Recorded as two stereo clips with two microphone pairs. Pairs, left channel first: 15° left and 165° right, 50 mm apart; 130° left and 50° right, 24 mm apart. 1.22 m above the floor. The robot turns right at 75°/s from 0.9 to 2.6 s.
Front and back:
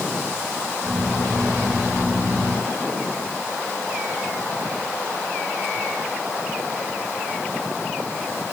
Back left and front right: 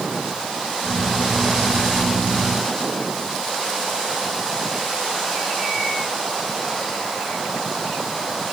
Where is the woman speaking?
I don't hear a woman speaking.